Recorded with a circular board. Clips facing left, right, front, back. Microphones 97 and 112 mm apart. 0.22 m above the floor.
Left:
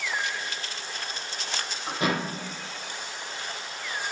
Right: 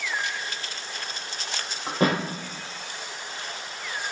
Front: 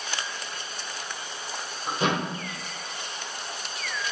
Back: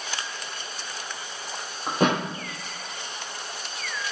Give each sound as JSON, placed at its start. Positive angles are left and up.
{"t": 1.9, "sound": "a thud", "azimuth_deg": -140, "distance_m": 0.9}